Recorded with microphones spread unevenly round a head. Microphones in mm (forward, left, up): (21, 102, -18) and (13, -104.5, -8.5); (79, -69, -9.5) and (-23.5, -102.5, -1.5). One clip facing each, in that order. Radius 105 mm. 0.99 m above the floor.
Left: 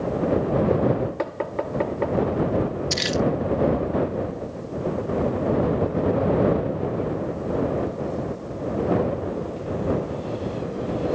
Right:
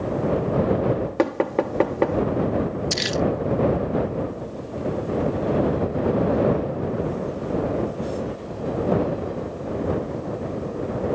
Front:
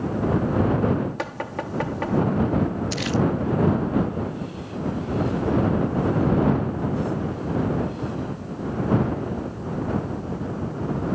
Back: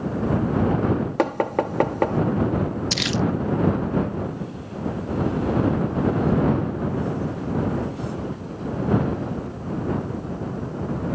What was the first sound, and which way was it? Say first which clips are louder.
Knocking: right 6 dB, back 8 dB; 125° right.